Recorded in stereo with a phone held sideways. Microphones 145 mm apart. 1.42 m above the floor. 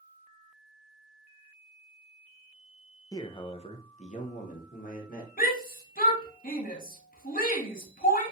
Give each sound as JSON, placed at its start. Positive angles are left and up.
{"t": 3.1, "sound": "a man speaking", "side_deg": 25, "distance_m": 0.6}
{"t": 5.4, "sound": "a shout", "side_deg": 80, "distance_m": 1.3}